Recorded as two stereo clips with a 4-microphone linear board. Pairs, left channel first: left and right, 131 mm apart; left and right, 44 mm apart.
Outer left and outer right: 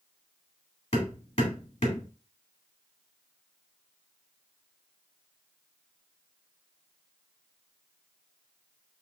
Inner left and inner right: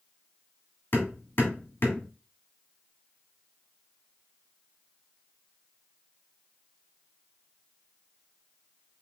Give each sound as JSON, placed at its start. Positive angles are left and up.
{"t": 0.9, "sound": "hammering", "side_deg": 55, "distance_m": 2.0}